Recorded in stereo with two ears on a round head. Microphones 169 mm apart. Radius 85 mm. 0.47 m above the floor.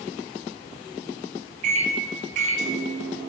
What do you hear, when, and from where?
1.6 s a microwave: 40° right (ahead or behind), 0.6 m